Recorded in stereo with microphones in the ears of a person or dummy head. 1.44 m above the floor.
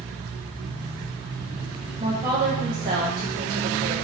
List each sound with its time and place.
2.0 s a woman speaking: 30° right (ahead or behind), 1.0 m